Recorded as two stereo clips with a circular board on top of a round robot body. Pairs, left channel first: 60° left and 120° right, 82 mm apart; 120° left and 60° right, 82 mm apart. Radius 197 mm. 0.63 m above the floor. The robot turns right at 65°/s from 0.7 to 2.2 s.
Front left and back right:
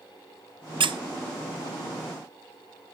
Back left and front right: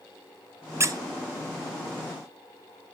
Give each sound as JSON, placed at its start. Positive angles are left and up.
{"t": 0.8, "sound": "a squeak", "azimuth_deg": -115, "distance_m": 0.8}